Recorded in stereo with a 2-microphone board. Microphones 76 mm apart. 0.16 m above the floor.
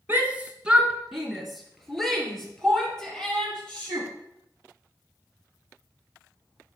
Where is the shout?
25° right (ahead or behind), 1.3 m; by 4.1 s 10° left (ahead or behind), 4.5 m.